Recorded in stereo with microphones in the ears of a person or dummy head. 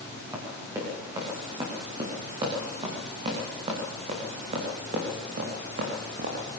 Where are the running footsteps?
15° right (ahead or behind), 8 m; by 6.5 s 45° right (ahead or behind), 5.5 m.